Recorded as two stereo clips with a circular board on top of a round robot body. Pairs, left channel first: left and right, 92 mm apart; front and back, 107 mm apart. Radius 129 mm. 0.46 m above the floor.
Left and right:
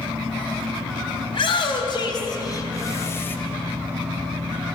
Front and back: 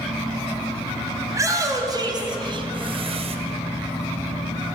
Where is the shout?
120° left, 4 m; by 3.4 s 160° left, 3 m.